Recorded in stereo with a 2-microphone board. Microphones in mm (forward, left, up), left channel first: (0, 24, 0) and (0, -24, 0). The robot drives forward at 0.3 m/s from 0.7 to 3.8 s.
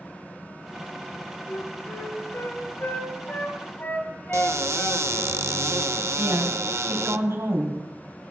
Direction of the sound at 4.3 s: 75° right (ahead or behind).